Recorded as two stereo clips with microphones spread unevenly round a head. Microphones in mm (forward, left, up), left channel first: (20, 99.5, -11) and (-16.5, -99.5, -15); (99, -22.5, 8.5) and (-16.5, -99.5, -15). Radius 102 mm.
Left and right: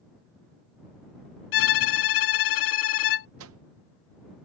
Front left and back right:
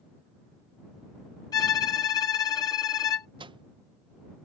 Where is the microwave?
100° right.